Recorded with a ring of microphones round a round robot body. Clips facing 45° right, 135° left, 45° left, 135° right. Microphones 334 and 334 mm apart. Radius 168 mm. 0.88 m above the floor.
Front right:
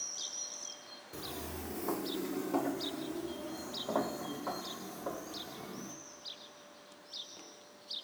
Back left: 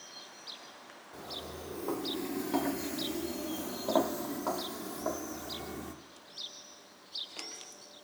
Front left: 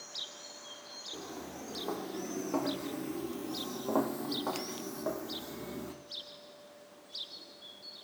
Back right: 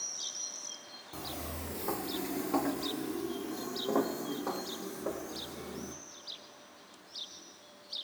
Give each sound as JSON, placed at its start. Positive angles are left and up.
{"t": 1.1, "sound": "footsteps", "azimuth_deg": -90, "distance_m": 1.4}